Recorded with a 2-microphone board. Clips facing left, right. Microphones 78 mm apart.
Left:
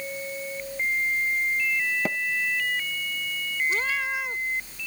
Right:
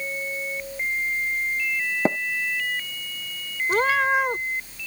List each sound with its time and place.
2.0 s tapping: 30° right (ahead or behind)
3.7 s a cat meowing: 55° right (ahead or behind)